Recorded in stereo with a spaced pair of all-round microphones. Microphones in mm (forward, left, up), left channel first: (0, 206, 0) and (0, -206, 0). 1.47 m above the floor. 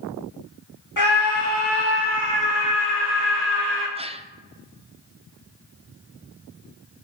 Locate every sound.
1.0 s a scream: 45° left (ahead or behind), 2 m; by 3.9 s 25° left (ahead or behind), 6 m
4.0 s a gasp: 15° right (ahead or behind), 0.6 m